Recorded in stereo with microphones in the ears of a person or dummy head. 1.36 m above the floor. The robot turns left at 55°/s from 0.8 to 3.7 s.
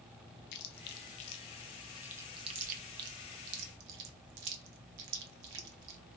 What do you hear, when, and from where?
0.5 s chewing: 60° left (ahead or behind), 0.7 m; by 6.0 s 75° right (ahead or behind), 0.7 m